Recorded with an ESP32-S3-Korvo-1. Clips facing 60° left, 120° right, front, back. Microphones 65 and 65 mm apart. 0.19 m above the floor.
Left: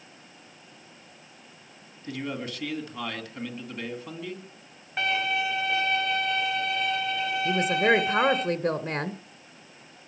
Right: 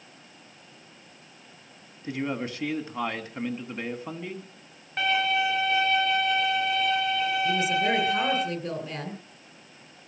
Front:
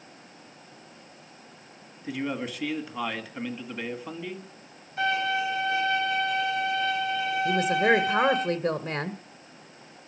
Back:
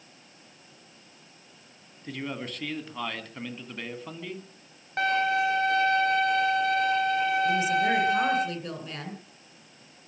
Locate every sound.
2.0 s a man speaking: 75° right, 1.9 m
5.0 s a violin: 145° left, 6.5 m
7.5 s a woman speaking: 35° left, 1.7 m